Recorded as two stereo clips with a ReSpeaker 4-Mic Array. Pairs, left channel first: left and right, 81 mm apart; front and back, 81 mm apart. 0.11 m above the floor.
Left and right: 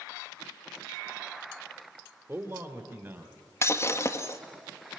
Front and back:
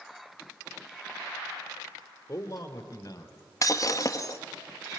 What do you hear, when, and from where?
2.3 s a man speaking: 45° right, 3.5 m; by 3.3 s 30° right, 3.5 m
3.6 s breaking glass: 40° left, 1.5 m